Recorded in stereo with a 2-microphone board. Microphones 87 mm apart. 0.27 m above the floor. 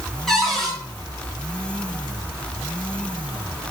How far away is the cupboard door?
About 3.5 m.